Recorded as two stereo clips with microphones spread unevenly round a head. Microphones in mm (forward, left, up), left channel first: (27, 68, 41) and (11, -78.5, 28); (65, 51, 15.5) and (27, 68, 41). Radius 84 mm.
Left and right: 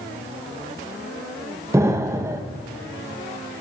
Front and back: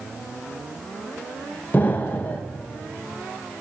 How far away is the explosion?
About 0.7 m.